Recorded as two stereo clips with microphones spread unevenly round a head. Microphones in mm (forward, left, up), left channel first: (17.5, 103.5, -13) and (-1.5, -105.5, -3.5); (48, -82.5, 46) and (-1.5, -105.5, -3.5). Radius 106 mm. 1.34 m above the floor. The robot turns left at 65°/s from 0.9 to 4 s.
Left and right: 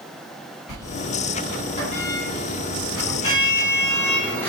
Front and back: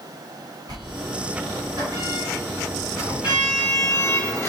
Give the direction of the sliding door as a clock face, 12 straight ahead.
5 o'clock.